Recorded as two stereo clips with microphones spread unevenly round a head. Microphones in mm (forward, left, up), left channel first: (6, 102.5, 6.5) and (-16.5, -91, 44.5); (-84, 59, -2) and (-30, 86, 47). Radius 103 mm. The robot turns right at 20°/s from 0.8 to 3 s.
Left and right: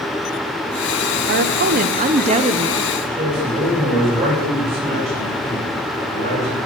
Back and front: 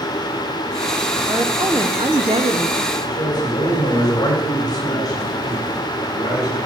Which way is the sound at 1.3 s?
55° right.